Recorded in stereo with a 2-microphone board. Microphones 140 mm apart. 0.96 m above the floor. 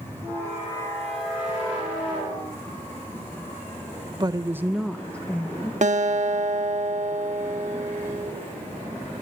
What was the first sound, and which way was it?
A woman speaking, 30° right (ahead or behind).